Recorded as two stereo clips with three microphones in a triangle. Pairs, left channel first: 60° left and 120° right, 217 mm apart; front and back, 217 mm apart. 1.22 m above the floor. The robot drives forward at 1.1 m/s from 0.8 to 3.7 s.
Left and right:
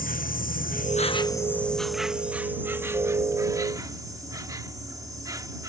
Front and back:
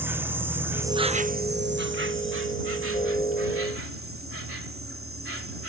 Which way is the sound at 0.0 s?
100° left.